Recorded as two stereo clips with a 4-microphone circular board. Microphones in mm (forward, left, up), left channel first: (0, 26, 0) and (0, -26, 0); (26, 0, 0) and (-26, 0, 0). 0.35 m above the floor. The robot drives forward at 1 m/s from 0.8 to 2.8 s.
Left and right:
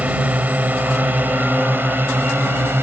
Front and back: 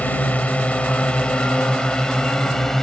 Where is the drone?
45° right; by 2.8 s 80° right.